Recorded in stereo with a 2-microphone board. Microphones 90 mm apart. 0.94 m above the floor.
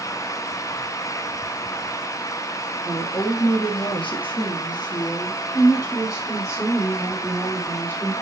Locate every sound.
2.9 s a woman speaking: 50° left (ahead or behind), 2 m; by 8.1 s 25° left (ahead or behind), 5 m